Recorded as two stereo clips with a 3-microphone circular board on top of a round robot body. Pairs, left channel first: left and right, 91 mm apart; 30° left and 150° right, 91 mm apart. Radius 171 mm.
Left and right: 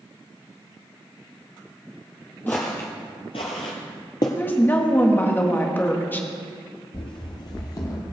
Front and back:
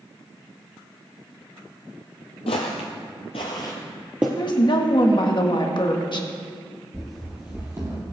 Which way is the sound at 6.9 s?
110° left.